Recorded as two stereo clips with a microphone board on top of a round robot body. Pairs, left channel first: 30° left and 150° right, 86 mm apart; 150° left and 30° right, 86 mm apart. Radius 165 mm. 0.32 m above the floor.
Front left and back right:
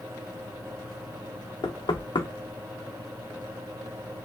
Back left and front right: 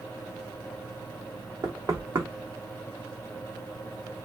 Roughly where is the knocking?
Ahead.